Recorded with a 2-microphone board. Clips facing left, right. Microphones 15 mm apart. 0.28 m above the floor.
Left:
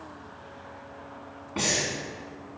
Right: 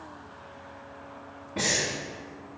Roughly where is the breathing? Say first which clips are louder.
Even; left.